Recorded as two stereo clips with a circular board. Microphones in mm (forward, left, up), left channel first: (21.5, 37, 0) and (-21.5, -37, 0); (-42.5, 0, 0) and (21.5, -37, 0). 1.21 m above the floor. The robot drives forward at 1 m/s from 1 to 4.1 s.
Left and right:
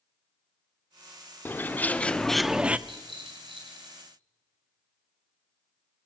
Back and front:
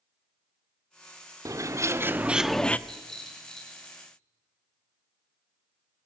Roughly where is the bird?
Ahead.